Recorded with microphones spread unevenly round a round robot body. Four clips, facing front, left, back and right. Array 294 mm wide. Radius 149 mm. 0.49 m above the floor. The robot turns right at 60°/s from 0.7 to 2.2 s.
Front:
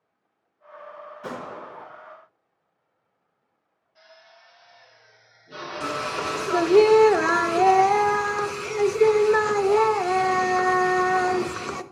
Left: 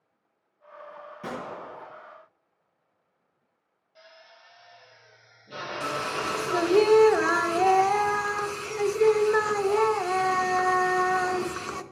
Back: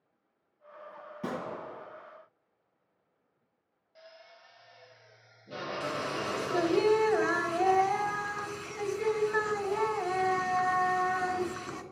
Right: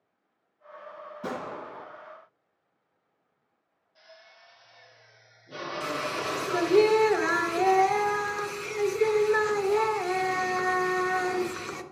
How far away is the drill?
About 2.5 m.